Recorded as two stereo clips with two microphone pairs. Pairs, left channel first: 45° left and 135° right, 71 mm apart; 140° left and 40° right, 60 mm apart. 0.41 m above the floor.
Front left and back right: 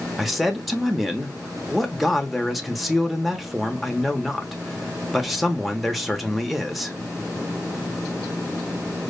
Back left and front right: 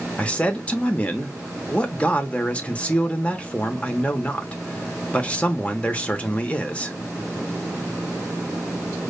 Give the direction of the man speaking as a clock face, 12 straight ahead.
7 o'clock.